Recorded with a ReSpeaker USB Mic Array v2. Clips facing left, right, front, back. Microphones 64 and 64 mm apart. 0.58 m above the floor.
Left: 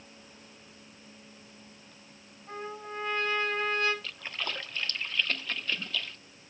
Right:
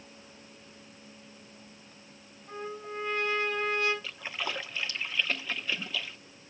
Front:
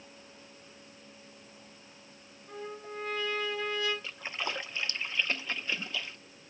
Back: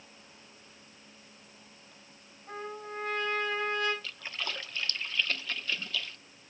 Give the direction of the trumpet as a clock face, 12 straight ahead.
7 o'clock.